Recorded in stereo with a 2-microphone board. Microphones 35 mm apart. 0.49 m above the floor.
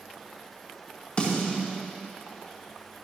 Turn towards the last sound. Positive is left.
turn(degrees=35)  # may be behind; listen again after turning